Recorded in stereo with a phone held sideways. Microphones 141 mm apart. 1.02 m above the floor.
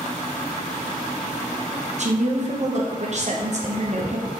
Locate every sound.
2.0 s a woman speaking: 55° right (ahead or behind), 0.8 m